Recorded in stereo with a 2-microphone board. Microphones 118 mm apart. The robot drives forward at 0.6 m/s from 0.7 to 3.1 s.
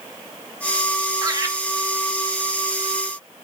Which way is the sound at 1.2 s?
30° right (ahead or behind).